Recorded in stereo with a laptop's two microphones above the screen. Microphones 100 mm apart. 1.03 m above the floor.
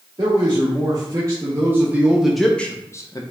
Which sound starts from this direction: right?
A man speaking, at 0.2 s.